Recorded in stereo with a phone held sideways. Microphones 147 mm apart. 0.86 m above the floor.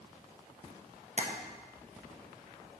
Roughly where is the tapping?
Right.